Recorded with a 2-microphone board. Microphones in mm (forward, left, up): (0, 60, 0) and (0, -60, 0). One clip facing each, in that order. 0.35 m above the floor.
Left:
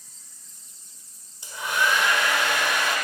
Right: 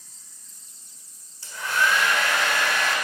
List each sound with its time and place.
1.4 s a hair dryer: 20° left (ahead or behind), 1.5 m